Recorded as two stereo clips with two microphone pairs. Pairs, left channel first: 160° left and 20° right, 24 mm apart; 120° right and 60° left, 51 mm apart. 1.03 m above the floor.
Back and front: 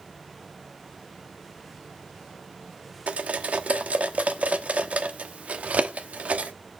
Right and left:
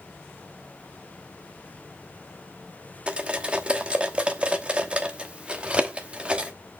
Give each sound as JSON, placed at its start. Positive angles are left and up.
{"t": 3.1, "sound": "cutlery clinking", "azimuth_deg": -5, "distance_m": 1.0}